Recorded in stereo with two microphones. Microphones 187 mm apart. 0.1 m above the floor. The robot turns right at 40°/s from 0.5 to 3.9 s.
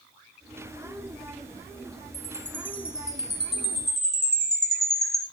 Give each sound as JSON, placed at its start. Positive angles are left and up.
{"t": 2.1, "sound": "a chime", "azimuth_deg": 30, "distance_m": 2.5}